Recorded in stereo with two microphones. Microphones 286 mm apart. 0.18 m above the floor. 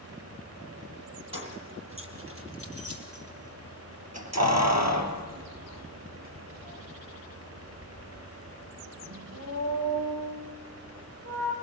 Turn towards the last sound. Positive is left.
turn(degrees=-55)  # may be behind; listen again after turning